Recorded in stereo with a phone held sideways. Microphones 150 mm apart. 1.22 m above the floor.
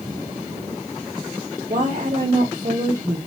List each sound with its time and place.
1.7 s a woman speaking: 65° right (ahead or behind), 3 m